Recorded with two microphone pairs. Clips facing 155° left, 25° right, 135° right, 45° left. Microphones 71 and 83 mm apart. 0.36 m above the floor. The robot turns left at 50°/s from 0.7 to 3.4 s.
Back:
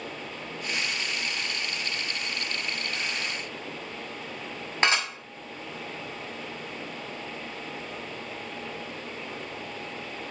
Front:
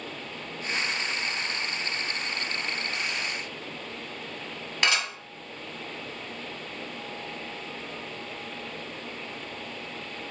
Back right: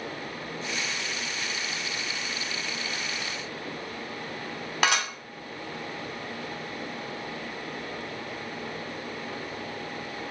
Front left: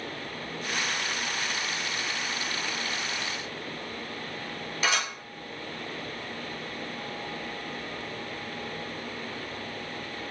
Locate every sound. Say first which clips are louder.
4.8 s dishes clattering: back 2 dB, back right 3 dB; 150° right, 1.8 m